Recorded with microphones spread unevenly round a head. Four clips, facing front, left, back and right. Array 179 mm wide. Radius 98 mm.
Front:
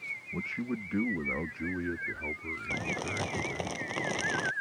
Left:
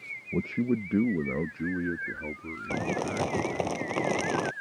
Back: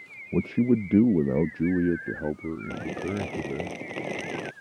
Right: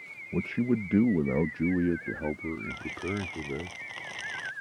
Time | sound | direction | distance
0.3 | a man speaking | 165° left | ?
2.7 | crumpling | 105° left | ?